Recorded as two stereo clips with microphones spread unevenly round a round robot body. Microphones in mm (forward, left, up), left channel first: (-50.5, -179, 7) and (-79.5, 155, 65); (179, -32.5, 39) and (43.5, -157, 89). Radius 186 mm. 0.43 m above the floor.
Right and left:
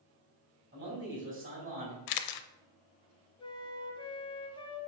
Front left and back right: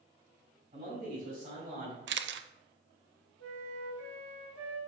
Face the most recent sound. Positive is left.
turn(degrees=-165)